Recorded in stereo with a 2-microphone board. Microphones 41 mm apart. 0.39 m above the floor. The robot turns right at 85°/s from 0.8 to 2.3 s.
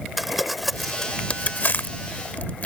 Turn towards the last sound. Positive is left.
turn(degrees=35)  # may be behind; listen again after turning